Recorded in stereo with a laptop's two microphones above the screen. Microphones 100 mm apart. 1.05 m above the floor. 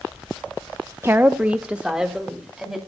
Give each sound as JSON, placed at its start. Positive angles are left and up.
{"t": 1.0, "sound": "a woman speaking", "side_deg": -25, "distance_m": 0.5}